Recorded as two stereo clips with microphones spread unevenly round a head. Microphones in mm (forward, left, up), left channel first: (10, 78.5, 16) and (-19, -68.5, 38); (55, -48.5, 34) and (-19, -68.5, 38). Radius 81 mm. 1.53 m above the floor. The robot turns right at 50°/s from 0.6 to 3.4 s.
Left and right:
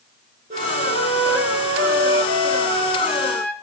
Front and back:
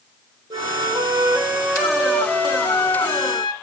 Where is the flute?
145° right, 1.5 m; by 3.5 s 5° right, 1.5 m.